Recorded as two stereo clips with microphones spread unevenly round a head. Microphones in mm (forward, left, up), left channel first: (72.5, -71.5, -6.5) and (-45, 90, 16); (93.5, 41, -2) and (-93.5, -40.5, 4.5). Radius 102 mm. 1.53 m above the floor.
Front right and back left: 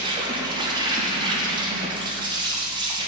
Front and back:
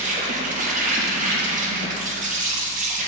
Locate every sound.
0.0 s an insect: 170° right, 0.8 m